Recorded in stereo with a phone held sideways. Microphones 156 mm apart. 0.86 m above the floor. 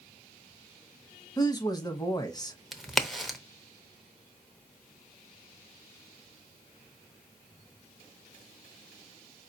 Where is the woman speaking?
25° left (ahead or behind), 0.8 m.